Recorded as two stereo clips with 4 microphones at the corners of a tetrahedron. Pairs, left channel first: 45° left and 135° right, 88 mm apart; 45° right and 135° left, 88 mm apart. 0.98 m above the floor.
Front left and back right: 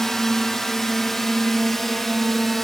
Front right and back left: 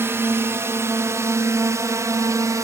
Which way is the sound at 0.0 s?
125° left.